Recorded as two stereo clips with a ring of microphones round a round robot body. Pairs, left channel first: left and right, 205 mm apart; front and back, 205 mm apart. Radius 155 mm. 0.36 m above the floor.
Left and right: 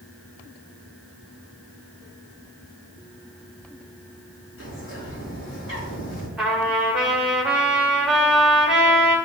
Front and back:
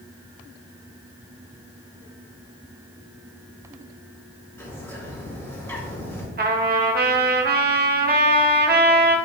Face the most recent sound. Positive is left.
turn(degrees=-175)